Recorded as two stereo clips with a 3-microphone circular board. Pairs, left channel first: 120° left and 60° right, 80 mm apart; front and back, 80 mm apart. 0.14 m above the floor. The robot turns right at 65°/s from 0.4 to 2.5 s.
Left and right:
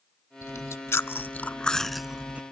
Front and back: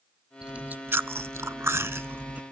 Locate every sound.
0.4 s chewing: 110° left, 0.5 m; by 2.4 s 120° right, 0.5 m